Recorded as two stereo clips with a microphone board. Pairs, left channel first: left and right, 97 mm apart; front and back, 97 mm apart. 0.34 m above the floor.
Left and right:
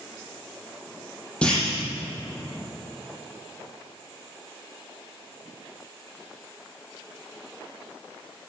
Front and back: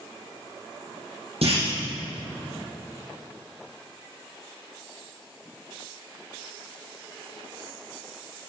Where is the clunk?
170° left, 5.5 m.